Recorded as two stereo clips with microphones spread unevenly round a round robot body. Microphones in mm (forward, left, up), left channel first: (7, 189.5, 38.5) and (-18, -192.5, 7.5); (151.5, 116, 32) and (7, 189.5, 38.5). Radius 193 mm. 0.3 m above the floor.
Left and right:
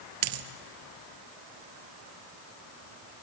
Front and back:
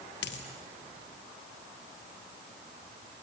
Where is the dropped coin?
55° right, 1.1 m.